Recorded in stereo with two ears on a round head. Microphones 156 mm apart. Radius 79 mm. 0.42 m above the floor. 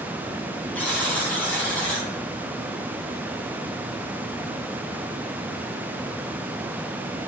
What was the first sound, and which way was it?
A buzzer, 10° left (ahead or behind).